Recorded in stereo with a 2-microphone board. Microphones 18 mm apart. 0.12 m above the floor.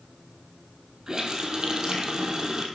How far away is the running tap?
About 2.0 m.